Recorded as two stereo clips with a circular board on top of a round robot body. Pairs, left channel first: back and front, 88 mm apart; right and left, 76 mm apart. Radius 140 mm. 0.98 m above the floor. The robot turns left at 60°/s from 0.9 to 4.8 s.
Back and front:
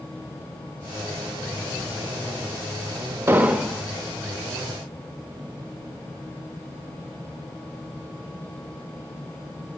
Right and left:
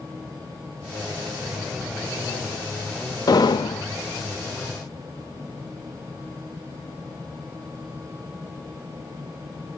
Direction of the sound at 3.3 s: 60° right.